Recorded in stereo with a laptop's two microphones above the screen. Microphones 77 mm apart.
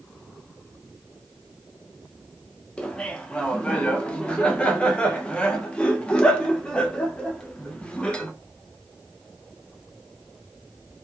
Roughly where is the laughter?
Centre.